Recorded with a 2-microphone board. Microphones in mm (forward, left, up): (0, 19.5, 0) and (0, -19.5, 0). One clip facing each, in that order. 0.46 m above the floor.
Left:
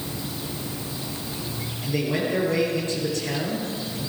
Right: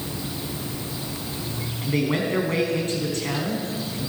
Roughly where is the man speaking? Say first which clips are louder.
Right 2 dB; right.